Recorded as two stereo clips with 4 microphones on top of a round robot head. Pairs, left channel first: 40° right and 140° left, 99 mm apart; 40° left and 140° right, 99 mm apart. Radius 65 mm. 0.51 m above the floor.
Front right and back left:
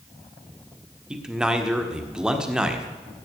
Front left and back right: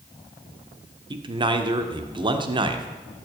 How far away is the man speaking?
About 1.7 m.